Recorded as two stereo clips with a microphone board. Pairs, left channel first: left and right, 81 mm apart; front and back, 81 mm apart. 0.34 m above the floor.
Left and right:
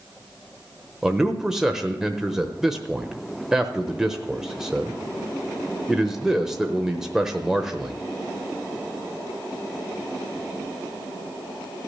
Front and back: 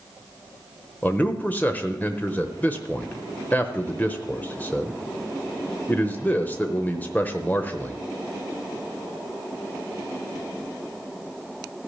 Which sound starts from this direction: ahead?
A man speaking, at 1.0 s.